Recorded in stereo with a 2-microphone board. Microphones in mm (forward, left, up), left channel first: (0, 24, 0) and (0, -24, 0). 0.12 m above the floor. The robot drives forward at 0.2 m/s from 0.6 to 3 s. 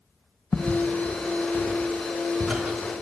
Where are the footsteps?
35° left (ahead or behind), 1.5 m; by 3.0 s 10° right (ahead or behind), 2.5 m.